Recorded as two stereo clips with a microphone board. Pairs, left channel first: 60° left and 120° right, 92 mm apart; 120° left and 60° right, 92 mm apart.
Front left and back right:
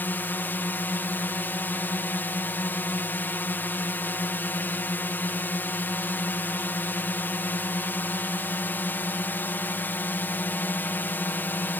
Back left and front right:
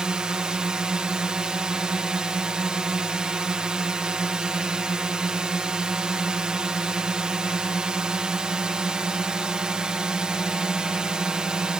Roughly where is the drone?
Ahead.